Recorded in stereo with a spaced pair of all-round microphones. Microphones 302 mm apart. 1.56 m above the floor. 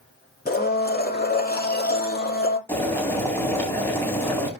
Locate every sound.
0.5 s a blender: 30° left (ahead or behind), 1.9 m
2.7 s boiling: 10° left (ahead or behind), 4 m